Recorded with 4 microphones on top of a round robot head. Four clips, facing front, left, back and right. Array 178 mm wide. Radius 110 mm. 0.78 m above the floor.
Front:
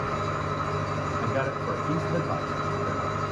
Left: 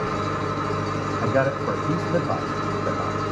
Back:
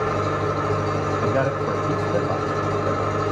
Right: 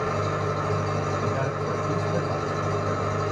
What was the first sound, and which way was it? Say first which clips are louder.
An engine running: left 1 dB, back 7 dB; 170° left.